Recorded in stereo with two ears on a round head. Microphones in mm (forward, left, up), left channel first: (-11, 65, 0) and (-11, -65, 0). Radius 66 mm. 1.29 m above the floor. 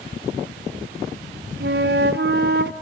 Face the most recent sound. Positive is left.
turn(degrees=-70)  # may be behind; listen again after turning